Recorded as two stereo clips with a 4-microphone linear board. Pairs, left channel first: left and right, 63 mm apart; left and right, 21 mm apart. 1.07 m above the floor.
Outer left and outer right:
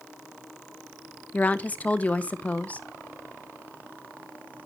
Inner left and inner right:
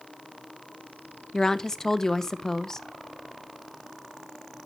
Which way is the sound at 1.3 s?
25° left (ahead or behind).